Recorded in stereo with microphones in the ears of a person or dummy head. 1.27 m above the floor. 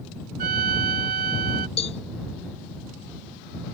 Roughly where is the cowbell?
Left.